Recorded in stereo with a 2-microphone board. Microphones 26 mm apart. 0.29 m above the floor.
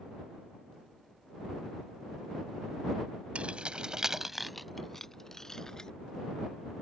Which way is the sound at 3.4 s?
55° right (ahead or behind).